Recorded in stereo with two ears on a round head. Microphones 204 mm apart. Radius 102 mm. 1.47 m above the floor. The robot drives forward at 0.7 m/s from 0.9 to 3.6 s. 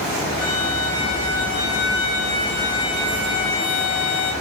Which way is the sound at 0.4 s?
50° left (ahead or behind).